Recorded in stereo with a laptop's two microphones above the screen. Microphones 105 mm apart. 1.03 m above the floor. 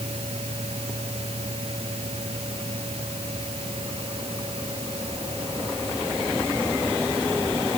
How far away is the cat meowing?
No cat meowing in this recording.